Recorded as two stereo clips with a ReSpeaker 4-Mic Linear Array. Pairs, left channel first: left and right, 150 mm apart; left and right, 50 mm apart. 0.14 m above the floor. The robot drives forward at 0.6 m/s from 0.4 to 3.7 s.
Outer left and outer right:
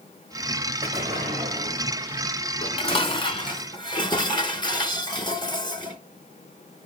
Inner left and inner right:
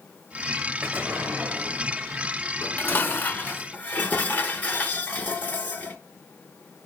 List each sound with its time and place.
0.8 s an explosion: 45° right (ahead or behind), 4.5 m; by 2.3 s 35° right (ahead or behind), 5 m
2.6 s dishes clattering: 40° left (ahead or behind), 0.9 m; by 6.0 s 30° left (ahead or behind), 1.1 m